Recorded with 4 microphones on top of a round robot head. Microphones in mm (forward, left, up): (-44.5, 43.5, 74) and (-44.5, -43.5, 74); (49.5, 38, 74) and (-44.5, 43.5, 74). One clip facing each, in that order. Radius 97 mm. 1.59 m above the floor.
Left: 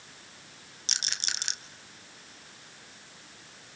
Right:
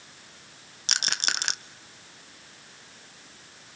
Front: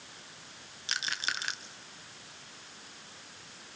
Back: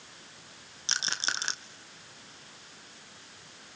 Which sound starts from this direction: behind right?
A rattle, at 0.9 s.